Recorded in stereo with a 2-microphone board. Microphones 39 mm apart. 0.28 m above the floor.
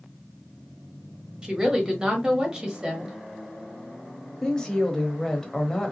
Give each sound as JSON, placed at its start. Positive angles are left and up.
{"t": 1.4, "sound": "a woman speaking", "side_deg": -20, "distance_m": 1.2}
{"t": 4.4, "sound": "a woman speaking", "side_deg": 15, "distance_m": 0.9}